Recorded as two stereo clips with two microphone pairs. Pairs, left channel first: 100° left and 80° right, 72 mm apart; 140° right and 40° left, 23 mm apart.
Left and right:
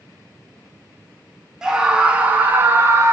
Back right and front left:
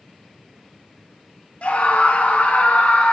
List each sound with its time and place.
1.6 s a scream: 160° right, 2.5 m; by 3.1 s 135° right, 2 m